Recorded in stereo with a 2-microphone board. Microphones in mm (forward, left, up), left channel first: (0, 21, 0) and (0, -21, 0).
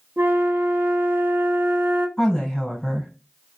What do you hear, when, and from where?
0.2 s a flute: 55° right (ahead or behind), 0.5 m
2.2 s a woman speaking: 10° left (ahead or behind), 1.3 m